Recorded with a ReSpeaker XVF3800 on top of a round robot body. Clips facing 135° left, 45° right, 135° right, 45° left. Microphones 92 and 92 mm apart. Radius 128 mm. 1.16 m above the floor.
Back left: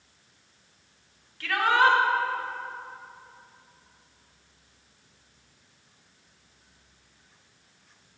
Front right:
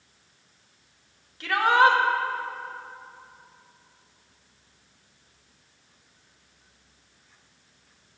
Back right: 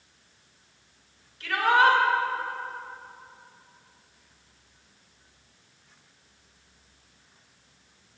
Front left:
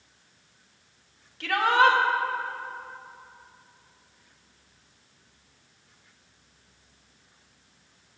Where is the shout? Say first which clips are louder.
Front right 3 dB, even; 25° left, 1.4 m.